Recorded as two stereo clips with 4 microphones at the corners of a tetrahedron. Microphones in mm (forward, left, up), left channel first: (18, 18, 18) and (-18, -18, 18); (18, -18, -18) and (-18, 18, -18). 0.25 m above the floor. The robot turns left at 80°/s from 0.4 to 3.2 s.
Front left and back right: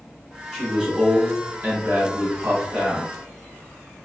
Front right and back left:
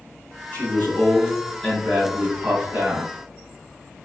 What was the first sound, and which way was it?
A man speaking, 35° right.